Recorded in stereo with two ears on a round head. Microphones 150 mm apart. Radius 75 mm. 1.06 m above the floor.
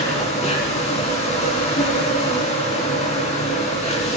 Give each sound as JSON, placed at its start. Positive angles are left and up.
{"t": 0.0, "sound": "an insect", "side_deg": 40, "distance_m": 3.0}